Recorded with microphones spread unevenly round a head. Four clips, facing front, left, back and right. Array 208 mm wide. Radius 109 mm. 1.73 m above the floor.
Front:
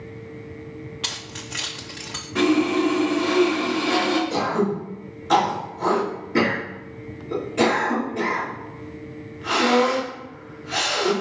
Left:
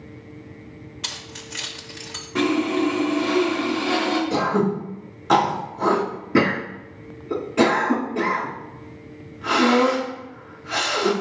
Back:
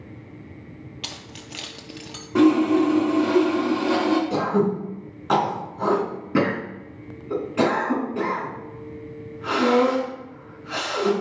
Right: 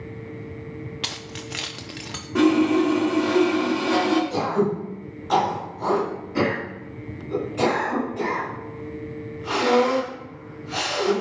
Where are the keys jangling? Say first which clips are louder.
Right 3 dB, front 4 dB; 120° right, 0.6 m.